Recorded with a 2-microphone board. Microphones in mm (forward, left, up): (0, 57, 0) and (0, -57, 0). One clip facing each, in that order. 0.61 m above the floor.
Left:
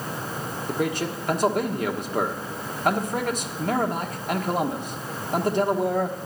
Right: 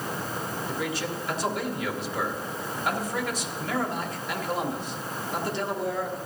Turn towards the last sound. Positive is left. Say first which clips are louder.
# left 7 dB
turn(degrees=50)  # may be behind; listen again after turning